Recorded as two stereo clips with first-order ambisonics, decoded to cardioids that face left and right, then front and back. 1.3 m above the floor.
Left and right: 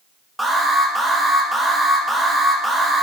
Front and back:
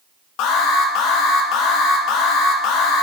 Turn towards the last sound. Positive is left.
turn(degrees=0)